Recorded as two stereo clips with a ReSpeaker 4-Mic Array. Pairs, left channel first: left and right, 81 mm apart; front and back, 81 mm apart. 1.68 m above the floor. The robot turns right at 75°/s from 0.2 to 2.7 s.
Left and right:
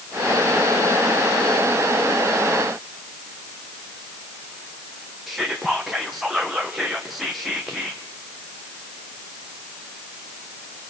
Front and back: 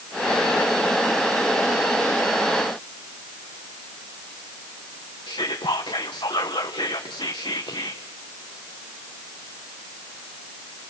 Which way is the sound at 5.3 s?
5° right.